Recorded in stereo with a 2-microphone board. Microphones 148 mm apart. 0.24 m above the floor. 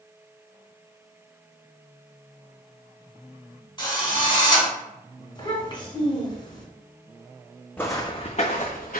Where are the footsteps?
10° left (ahead or behind), 0.6 m; by 9.0 s 70° left (ahead or behind), 1.0 m.